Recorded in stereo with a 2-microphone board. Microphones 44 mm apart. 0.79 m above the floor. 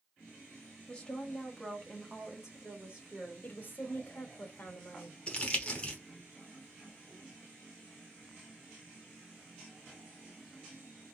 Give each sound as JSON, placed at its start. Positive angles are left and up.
{"t": 0.9, "sound": "a woman speaking", "side_deg": 25, "distance_m": 1.0}
{"t": 3.4, "sound": "a woman speaking", "side_deg": 45, "distance_m": 1.1}
{"t": 5.3, "sound": "crumpling", "side_deg": 25, "distance_m": 0.9}